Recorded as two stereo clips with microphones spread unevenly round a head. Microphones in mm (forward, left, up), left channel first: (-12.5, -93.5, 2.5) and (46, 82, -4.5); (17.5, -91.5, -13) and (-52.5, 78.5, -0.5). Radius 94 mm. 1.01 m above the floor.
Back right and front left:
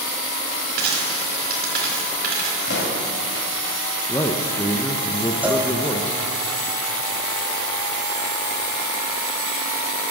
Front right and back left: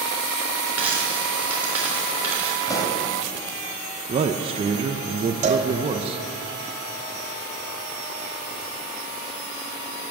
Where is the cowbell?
155° left, 1.2 m.